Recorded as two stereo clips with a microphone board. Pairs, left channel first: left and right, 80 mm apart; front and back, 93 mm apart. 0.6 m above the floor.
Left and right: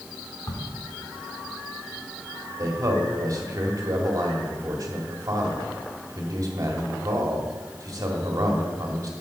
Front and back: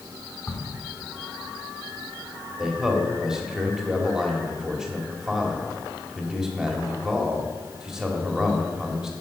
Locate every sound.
0.5 s a crack: 60° left, 1.4 m
2.6 s a man speaking: 100° right, 1.8 m